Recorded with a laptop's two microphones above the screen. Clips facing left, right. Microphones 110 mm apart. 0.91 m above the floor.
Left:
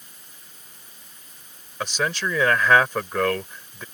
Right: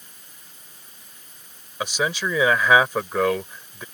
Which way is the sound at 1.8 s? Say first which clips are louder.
Right 1 dB; 10° right (ahead or behind).